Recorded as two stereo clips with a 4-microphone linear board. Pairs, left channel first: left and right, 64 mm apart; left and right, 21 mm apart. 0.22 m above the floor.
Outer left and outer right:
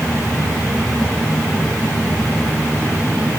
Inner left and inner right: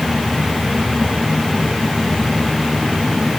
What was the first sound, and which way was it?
Only background noise.